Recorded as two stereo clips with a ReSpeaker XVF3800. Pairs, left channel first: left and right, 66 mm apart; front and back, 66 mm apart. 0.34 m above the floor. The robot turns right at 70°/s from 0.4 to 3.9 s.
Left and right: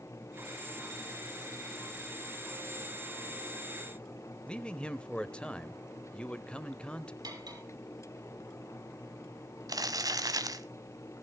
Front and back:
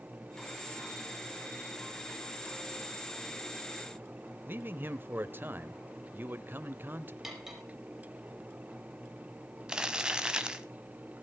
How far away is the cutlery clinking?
About 5 m.